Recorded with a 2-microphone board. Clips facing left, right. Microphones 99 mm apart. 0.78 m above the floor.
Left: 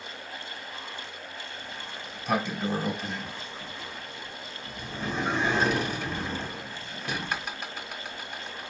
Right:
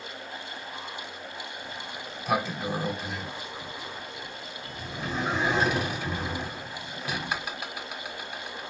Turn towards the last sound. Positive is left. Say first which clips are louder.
# right 2 dB
turn(degrees=-5)  # may be behind; listen again after turning